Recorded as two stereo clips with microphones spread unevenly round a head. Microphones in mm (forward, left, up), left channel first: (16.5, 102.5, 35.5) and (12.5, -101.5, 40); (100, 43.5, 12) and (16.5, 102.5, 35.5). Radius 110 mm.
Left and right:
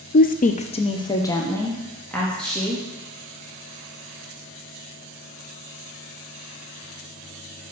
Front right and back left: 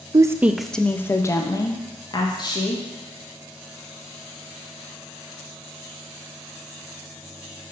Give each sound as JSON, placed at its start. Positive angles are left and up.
{"t": 0.1, "sound": "a woman speaking", "azimuth_deg": 85, "distance_m": 0.5}